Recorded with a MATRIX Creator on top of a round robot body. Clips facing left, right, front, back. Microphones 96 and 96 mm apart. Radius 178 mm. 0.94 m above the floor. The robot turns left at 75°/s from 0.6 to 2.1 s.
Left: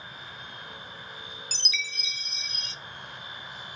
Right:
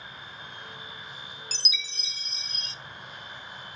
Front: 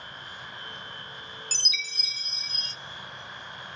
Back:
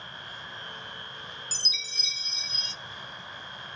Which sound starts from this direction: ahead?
A chime, at 1.5 s.